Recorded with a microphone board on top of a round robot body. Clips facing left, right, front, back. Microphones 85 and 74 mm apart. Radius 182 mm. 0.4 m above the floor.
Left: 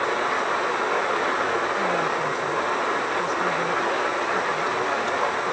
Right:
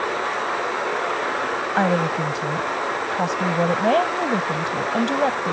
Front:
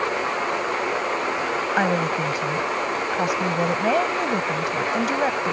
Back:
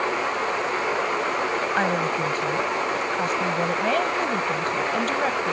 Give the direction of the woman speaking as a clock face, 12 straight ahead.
3 o'clock.